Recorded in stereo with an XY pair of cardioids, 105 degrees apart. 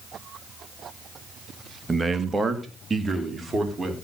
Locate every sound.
1.9 s a man speaking: 20° right, 1.7 m; by 3.9 s 25° right, 4.5 m